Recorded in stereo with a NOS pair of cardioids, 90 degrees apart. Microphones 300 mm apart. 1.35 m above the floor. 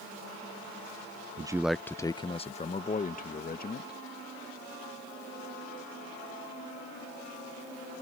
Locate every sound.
1.4 s a man speaking: 20° right; by 4.0 s 30° left